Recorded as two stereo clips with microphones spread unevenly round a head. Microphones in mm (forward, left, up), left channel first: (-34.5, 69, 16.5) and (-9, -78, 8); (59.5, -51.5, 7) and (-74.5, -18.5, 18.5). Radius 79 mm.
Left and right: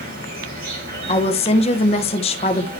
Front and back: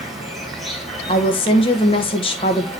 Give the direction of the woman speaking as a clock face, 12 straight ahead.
11 o'clock.